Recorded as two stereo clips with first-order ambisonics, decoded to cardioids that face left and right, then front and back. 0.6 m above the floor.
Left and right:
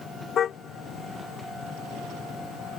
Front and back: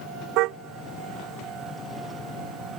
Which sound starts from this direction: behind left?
A car horn, at 0.4 s.